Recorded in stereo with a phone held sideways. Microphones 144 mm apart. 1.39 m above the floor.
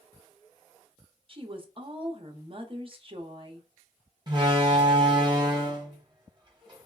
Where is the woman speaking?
40° right (ahead or behind), 0.6 m.